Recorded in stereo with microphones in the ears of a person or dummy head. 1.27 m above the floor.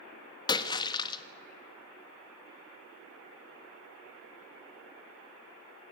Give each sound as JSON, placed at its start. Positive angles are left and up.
{"t": 0.5, "sound": "a splash", "side_deg": 25, "distance_m": 1.4}